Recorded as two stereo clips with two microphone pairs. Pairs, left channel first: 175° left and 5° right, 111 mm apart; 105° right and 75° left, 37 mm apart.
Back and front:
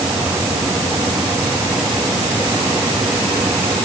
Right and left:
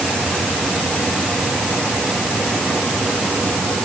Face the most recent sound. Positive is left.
No sound to turn to.